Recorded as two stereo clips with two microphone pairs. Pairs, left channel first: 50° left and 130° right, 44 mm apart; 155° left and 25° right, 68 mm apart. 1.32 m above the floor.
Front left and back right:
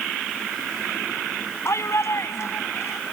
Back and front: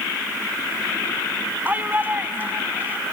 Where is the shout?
40° left.